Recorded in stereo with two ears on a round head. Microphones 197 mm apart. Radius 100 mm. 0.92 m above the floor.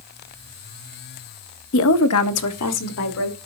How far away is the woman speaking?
About 0.6 m.